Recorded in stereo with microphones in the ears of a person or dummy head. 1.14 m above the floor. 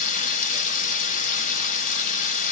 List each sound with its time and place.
0.0 s running water: 45° left (ahead or behind), 0.7 m